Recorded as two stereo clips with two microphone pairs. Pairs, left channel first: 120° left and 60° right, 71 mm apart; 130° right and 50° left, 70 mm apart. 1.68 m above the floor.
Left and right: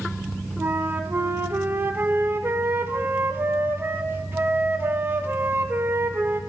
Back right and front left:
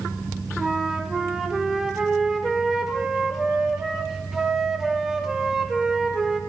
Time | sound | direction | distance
0.6 | a flute | 40° right | 0.5 m